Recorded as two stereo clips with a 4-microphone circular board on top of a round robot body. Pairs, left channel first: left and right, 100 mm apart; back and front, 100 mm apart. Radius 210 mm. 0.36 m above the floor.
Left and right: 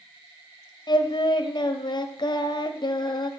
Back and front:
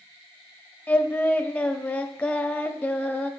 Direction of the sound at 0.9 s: 105° left.